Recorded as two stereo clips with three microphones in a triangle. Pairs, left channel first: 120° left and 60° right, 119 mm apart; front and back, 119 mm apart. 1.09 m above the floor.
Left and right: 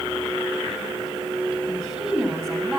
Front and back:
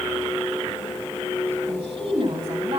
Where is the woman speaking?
150° right, 7.5 m.